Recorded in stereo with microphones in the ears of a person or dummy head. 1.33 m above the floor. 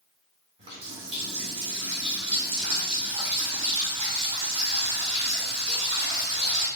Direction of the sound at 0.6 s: 30° right (ahead or behind).